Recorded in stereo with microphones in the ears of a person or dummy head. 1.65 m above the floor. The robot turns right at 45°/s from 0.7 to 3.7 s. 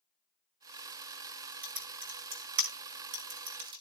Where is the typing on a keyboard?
45° right (ahead or behind), 2.5 m; by 3.8 s 25° right (ahead or behind), 2.5 m.